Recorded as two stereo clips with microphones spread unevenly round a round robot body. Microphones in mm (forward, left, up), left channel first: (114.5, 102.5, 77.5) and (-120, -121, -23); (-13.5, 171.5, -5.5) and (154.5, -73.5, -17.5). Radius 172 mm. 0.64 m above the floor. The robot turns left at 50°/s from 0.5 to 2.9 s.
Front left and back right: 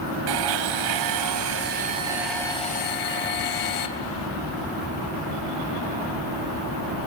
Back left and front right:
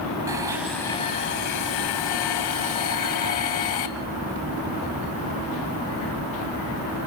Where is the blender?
135° right, 1.8 m; by 3.9 s 105° left, 1.8 m.